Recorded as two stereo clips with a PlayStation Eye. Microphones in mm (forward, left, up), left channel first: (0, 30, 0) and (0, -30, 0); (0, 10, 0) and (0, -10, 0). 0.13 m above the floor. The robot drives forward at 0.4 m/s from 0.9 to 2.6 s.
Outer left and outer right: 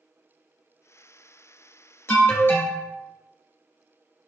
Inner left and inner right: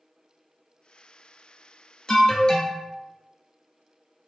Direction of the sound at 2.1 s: 45° left (ahead or behind).